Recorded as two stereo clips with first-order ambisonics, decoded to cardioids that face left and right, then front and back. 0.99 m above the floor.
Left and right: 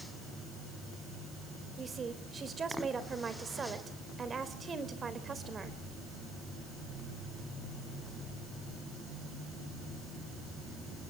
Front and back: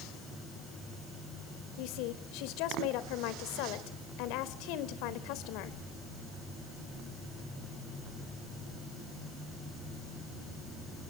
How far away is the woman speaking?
About 3.5 m.